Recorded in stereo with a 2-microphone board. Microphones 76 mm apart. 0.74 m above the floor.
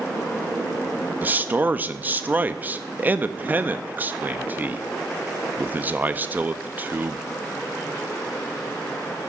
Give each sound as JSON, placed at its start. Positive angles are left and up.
{"t": 1.2, "sound": "a man speaking", "side_deg": -25, "distance_m": 0.5}